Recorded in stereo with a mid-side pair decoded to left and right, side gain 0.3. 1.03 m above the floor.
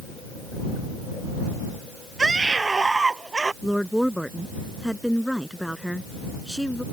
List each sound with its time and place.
2.2 s a scream: 35° right; by 3.5 s 30° right
3.6 s a woman speaking: straight ahead